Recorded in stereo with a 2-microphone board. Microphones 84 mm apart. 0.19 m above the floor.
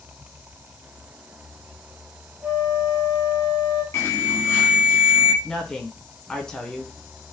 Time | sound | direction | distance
2.4 | a flute | 15° right (ahead or behind) | 2 m
3.9 | an alarm | 30° left (ahead or behind) | 1.7 m
5.4 | a woman speaking | 10° left (ahead or behind) | 1.4 m